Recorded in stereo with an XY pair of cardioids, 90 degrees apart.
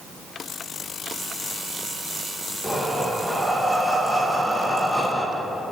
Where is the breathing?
Straight ahead, 1.2 m.